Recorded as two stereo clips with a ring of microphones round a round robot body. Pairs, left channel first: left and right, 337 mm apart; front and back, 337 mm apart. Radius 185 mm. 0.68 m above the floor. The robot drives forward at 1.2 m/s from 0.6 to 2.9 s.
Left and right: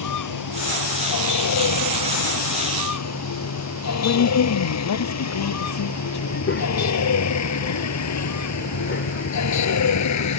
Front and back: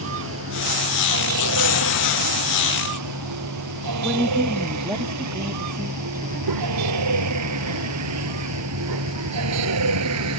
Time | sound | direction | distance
0.0 | a vehicle | 125° left | ?
4.0 | a woman speaking | 100° left | ?
6.2 | a child speaking | 145° left | ?